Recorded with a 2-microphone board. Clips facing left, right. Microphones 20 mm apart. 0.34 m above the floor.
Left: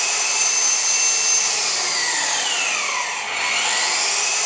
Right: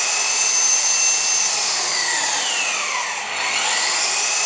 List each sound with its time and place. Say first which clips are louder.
0.0 s an engine running: even; 5° right (ahead or behind), 1.3 m